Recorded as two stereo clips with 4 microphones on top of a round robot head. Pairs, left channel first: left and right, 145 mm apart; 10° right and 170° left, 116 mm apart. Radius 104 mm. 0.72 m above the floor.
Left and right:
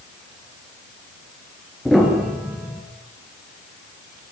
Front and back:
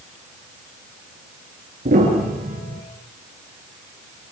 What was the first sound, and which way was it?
A piano, straight behind.